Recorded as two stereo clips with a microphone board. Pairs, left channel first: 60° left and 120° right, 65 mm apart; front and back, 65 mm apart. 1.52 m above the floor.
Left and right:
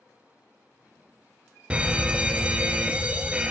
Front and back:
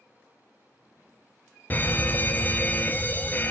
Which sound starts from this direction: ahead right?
An alarm, at 1.7 s.